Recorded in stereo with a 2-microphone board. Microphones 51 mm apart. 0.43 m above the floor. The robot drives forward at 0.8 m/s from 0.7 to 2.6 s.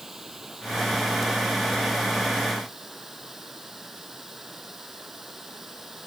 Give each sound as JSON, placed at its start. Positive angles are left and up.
{"t": 0.0, "sound": "running water", "side_deg": -5}